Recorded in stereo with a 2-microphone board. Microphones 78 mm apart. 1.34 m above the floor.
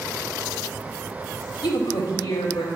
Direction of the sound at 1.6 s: 70° left (ahead or behind).